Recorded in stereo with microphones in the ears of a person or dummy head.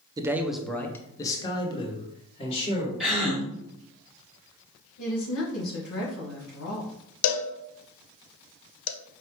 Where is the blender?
I don't hear a blender.